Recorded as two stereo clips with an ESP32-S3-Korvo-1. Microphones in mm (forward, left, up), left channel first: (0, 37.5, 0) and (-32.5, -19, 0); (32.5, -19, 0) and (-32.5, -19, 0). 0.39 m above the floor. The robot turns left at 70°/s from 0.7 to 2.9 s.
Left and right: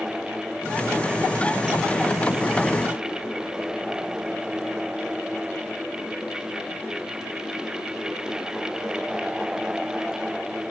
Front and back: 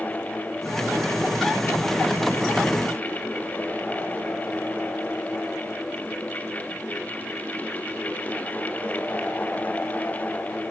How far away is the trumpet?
No trumpet in this recording.